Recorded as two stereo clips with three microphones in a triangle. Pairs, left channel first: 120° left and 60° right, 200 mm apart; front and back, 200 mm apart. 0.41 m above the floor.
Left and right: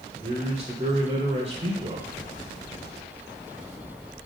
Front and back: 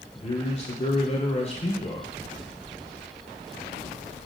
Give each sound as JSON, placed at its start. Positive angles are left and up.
{"t": 0.1, "sound": "a man speaking", "azimuth_deg": -30, "distance_m": 1.6}